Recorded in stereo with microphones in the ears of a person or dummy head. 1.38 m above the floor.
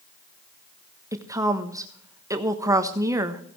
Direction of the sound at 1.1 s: 15° right (ahead or behind).